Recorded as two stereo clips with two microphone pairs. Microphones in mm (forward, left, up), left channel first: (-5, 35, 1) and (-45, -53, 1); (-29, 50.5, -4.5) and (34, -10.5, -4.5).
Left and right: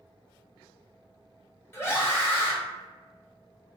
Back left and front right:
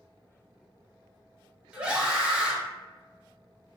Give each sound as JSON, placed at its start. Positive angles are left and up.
{"t": 1.7, "sound": "a scream", "azimuth_deg": 30, "distance_m": 0.9}